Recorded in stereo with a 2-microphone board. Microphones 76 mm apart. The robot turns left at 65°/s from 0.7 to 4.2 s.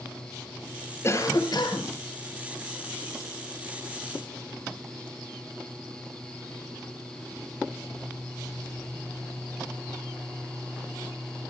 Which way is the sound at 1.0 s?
145° left.